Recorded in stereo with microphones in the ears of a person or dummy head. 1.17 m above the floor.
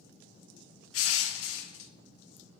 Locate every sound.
0.9 s crushing: 85° left, 0.8 m